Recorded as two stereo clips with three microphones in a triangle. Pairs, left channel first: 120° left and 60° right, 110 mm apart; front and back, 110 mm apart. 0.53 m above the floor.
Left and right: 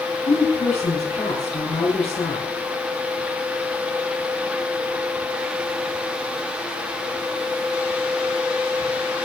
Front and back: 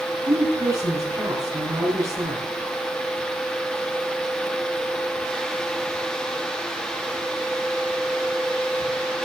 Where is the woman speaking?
120° left, 5.5 m.